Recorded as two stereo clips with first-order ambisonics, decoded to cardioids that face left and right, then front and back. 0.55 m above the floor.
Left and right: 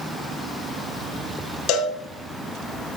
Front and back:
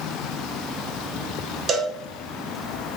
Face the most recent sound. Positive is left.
turn(degrees=120)